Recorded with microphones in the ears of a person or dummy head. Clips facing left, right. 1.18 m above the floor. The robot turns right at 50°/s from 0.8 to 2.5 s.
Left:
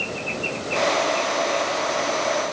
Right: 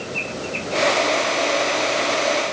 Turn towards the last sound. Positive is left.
No sound to turn to.